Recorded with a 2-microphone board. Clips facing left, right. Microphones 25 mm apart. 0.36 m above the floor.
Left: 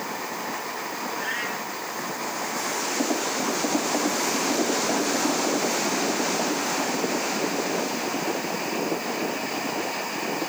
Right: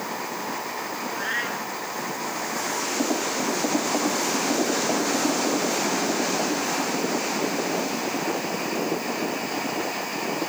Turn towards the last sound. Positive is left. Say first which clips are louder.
# right 3 dB
turn(degrees=-15)  # may be behind; listen again after turning